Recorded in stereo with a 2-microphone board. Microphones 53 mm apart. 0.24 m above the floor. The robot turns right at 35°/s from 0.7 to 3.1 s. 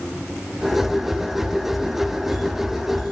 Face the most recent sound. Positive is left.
No sound to turn to.